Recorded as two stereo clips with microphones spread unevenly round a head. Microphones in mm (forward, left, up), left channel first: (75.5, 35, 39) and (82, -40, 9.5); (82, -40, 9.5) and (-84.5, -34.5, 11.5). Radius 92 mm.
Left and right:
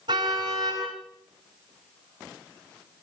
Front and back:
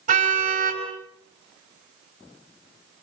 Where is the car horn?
135° right, 9 m.